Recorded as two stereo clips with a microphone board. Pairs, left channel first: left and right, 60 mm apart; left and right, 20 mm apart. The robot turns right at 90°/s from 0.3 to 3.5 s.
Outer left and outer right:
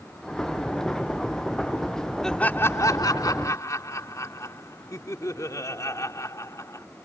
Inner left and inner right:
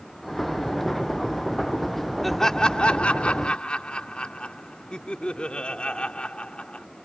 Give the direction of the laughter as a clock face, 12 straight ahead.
12 o'clock.